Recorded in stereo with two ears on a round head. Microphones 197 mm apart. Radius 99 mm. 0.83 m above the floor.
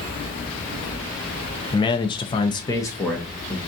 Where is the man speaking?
20° left (ahead or behind), 0.6 m; by 3.6 s 5° left (ahead or behind), 0.8 m.